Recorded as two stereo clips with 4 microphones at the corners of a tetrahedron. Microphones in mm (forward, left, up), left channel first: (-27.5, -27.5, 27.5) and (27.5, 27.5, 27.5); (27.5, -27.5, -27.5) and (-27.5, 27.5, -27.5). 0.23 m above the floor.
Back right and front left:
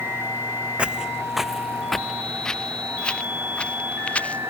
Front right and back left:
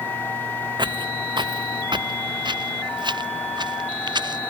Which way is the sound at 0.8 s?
120° left.